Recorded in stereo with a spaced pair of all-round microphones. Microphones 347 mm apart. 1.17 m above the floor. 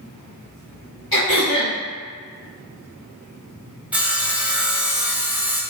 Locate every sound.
1.1 s throat clearing: 85° left, 1.6 m
3.9 s sawing: 5° right (ahead or behind), 0.6 m